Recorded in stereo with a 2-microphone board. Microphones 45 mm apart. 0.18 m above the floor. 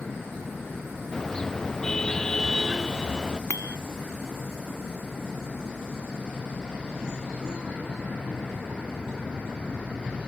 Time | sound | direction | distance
1.1 | a car horn | 10° left (ahead or behind) | ?
3.5 | a bicycle bell | 85° left | ?